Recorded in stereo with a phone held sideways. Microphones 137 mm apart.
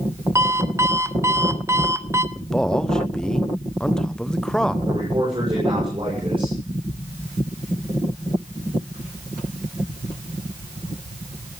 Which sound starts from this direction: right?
A man speaking, at 4.9 s.